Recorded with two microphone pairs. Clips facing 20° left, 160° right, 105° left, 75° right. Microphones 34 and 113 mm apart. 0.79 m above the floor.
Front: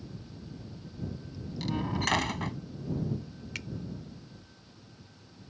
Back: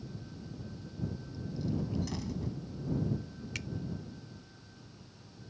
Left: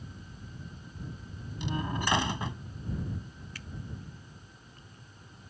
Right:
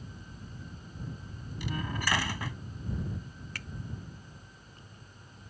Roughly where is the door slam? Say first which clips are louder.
Front 5 dB, left 2 dB; ahead left.